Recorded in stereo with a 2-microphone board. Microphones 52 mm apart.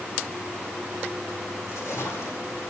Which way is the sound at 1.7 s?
65° left (ahead or behind).